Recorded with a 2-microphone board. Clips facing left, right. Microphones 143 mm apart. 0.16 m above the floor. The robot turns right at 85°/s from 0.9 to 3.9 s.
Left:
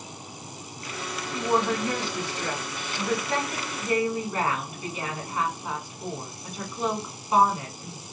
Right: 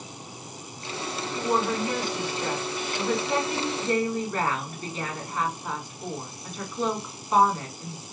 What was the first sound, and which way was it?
A woman speaking, 165° left.